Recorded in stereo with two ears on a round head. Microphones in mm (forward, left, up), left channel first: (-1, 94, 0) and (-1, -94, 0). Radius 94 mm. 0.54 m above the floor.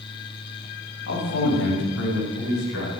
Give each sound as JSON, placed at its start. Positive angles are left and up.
{"t": 1.1, "sound": "a man speaking", "side_deg": 65, "distance_m": 3.0}